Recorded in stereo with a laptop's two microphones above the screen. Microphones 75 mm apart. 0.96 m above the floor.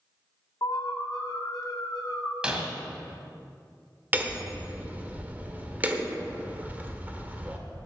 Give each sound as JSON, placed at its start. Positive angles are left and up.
{"t": 0.6, "sound": "an alarm", "side_deg": 55, "distance_m": 1.9}
{"t": 2.4, "sound": "breaking glass", "side_deg": -10, "distance_m": 1.5}
{"t": 4.1, "sound": "hammering", "side_deg": -20, "distance_m": 1.3}